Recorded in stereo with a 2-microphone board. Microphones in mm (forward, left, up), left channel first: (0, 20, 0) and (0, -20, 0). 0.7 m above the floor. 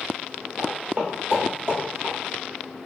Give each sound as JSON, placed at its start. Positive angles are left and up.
{"t": 0.6, "sound": "footsteps", "side_deg": -40, "distance_m": 1.2}